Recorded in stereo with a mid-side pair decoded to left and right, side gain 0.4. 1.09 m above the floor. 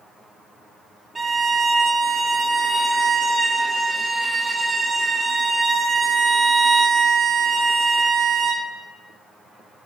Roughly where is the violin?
Ahead right.